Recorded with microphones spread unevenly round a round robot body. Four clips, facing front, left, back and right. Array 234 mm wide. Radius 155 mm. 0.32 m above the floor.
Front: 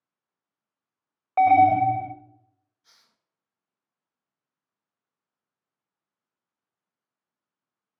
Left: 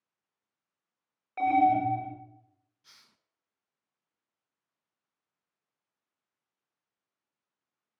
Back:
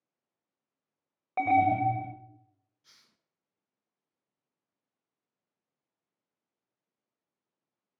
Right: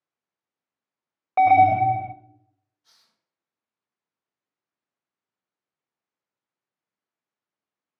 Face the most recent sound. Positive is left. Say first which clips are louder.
# left 4 dB, front 2 dB
turn(degrees=155)